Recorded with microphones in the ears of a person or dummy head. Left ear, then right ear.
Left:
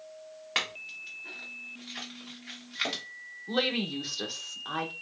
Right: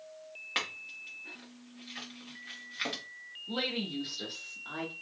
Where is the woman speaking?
30° left (ahead or behind), 0.9 m.